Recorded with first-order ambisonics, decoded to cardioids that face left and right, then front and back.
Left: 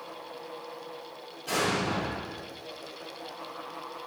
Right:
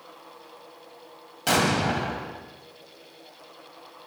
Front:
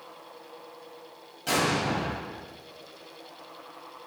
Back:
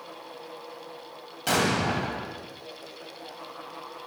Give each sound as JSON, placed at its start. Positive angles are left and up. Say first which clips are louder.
{"t": 1.5, "sound": "an explosion", "louder": "right 5 dB, back 1 dB", "azimuth_deg": -115, "distance_m": 2.0}